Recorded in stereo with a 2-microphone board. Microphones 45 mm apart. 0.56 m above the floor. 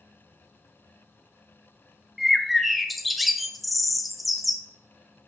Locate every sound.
2.2 s a bird: centre (ahead or behind), 0.7 m